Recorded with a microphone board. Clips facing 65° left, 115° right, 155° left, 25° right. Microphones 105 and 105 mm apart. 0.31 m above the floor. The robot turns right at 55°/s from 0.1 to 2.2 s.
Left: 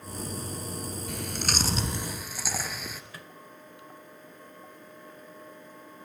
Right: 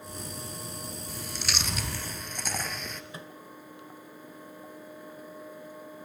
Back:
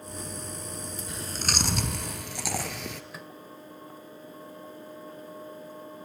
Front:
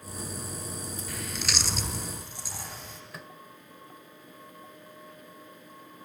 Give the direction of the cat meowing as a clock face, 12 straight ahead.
I don't hear a cat meowing.